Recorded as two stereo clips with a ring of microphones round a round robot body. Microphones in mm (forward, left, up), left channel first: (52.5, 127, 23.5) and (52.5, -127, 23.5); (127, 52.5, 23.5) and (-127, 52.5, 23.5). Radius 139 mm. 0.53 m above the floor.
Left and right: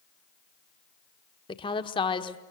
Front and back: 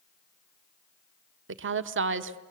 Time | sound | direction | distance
1.5 | a woman speaking | 160° left | 1.2 m